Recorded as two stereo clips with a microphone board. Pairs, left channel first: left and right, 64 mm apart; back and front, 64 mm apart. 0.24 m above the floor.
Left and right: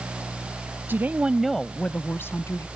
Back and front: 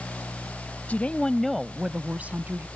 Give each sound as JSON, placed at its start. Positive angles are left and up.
{"t": 0.9, "sound": "a woman speaking", "azimuth_deg": -125}